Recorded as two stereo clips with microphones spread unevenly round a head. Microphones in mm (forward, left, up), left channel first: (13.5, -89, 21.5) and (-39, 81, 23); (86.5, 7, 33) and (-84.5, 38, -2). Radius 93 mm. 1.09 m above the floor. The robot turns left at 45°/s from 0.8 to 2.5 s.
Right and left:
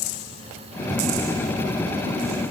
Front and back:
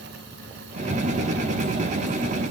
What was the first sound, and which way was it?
Only background noise.